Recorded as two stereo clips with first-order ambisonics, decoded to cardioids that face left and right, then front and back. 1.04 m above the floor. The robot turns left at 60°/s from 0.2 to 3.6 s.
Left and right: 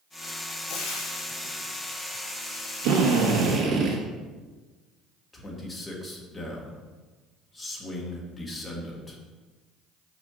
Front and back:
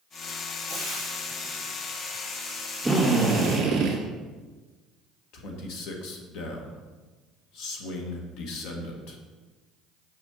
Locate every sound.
0.7 s frying: 110° left, 3 m; by 1.6 s 55° left, 3 m
2.8 s a drill: 95° right, 1.8 m; by 4.0 s 140° right, 1.8 m
5.3 s a man speaking: 10° left, 1.4 m